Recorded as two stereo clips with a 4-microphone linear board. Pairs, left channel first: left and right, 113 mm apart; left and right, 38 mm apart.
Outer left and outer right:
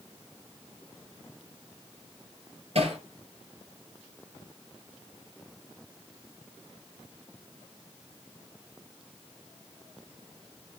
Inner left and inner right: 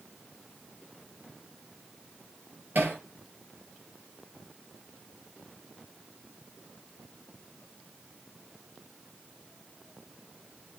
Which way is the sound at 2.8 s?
60° right (ahead or behind).